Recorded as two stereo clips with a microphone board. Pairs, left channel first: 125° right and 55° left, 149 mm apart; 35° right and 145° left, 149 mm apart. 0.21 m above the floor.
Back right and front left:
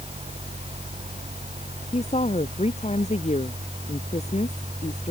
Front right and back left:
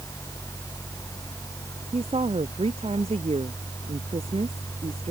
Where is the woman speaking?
165° right.